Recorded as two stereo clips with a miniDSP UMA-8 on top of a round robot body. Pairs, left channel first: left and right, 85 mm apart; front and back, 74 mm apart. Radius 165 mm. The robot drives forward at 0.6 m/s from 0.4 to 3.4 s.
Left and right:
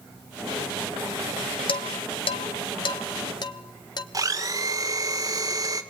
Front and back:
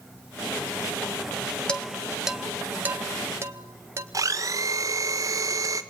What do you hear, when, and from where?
1.7 s dishes clattering: 80° left, 1.2 m; by 4.0 s 125° left, 1.4 m
4.1 s a blender: 135° right, 1.7 m